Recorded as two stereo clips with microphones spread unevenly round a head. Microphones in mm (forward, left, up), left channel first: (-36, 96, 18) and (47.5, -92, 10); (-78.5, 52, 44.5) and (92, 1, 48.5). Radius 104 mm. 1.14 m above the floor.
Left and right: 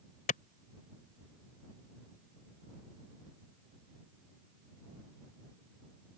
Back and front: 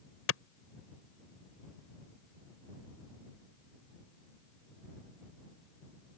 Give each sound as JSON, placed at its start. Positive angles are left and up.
{"t": 0.3, "sound": "a clap", "azimuth_deg": 165}